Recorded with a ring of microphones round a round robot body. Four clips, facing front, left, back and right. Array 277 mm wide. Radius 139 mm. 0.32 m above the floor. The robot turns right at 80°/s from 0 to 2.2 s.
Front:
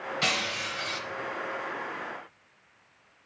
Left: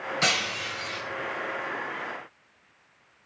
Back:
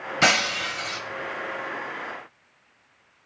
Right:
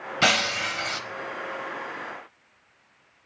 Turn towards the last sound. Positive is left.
turn(degrees=5)